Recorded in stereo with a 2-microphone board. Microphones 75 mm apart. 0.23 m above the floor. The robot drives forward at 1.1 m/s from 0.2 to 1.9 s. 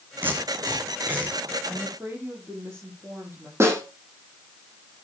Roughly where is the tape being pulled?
Right.